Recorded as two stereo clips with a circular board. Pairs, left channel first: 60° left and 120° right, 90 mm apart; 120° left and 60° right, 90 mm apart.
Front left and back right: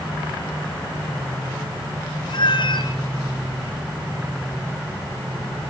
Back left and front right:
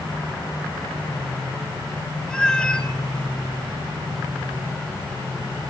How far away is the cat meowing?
About 1.9 m.